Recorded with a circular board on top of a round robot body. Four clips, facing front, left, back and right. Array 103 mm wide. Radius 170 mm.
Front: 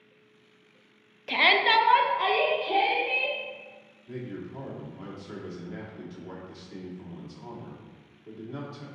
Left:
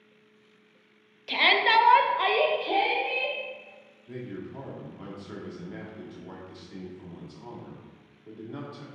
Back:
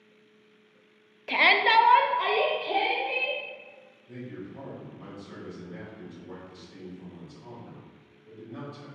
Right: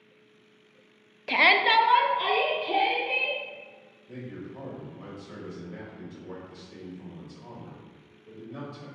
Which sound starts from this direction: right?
A shout, at 1.3 s.